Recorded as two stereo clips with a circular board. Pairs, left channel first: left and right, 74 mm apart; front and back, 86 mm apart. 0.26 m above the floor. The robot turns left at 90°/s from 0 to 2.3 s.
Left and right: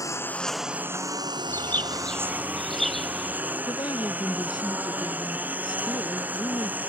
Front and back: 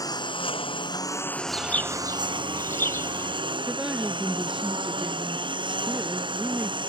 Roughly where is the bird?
Left.